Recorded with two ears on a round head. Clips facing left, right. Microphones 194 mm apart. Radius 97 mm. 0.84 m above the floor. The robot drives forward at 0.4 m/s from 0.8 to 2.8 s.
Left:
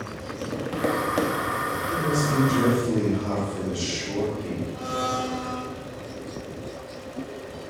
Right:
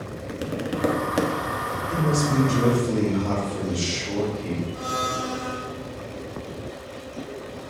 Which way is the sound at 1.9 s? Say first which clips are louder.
Right 2 dB; centre (ahead or behind).